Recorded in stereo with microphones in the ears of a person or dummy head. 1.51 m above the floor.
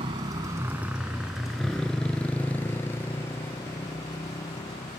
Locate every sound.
0.0 s a motorcycle: 30° right (ahead or behind); by 5.0 s 20° left (ahead or behind)